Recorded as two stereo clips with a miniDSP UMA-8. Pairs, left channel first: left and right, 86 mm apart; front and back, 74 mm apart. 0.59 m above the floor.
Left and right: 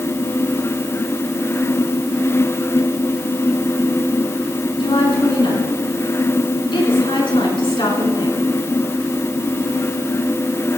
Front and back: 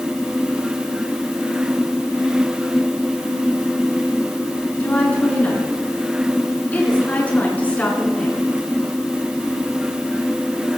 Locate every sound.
4.8 s a woman speaking: 70° left, 6 m